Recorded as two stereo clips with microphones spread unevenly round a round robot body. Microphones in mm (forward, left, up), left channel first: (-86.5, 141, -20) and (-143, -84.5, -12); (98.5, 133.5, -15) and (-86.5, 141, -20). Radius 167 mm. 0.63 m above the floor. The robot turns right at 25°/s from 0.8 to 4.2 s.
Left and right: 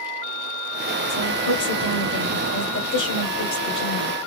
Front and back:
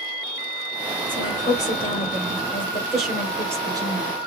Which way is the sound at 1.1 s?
40° left.